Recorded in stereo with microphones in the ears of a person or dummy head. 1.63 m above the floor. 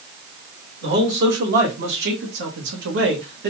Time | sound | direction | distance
0.8 | a man speaking | 55° right (ahead or behind) | 2.0 m